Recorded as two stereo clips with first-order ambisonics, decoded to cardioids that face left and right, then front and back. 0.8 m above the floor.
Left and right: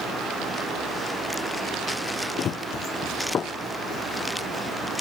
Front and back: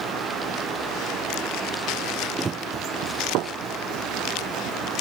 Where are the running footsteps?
115° left; by 4.8 s 165° left.